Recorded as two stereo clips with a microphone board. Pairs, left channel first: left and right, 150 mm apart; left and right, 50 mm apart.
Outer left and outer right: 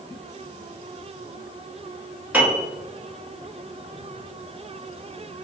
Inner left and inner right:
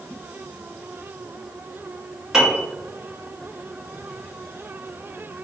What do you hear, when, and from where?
2.3 s a piano: 10° right (ahead or behind), 1.0 m